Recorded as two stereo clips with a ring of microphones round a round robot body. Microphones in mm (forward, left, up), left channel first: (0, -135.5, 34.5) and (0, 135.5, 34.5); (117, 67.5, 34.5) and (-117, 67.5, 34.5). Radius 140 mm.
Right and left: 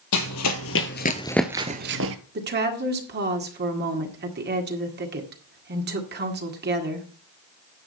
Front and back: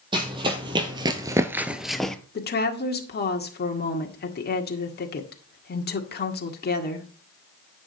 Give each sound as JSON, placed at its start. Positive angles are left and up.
{"t": 0.1, "sound": "running footsteps", "azimuth_deg": -110, "distance_m": 1.4}
{"t": 2.4, "sound": "a woman speaking", "azimuth_deg": 40, "distance_m": 1.8}